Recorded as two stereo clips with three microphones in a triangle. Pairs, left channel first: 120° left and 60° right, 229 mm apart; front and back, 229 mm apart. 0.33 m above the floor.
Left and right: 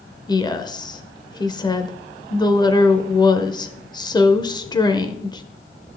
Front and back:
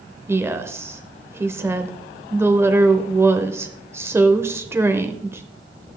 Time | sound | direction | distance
0.3 | a woman speaking | 125° left | 0.8 m